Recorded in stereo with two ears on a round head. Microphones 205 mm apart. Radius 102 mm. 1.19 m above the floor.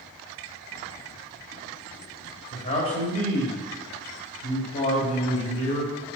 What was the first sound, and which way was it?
A man speaking, 35° left (ahead or behind).